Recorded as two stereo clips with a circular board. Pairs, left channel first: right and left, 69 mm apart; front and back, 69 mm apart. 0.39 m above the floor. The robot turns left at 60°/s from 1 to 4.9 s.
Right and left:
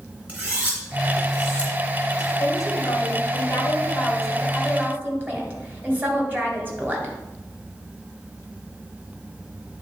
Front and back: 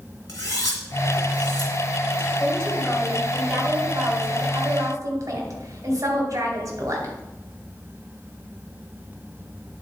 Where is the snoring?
I don't hear snoring.